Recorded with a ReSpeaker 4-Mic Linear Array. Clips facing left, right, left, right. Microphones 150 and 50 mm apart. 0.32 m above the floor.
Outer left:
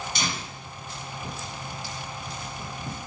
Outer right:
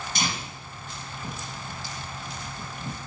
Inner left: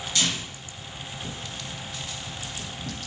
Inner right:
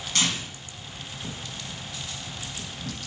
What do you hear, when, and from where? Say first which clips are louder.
0.1 s tearing paper: outer right 1 dB, inner right 1 dB; 55° right (ahead or behind), 1.8 m